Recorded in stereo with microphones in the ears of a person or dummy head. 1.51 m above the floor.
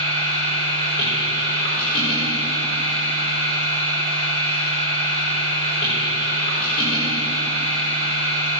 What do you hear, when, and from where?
0.0 s a machine running: 25° left (ahead or behind), 4 m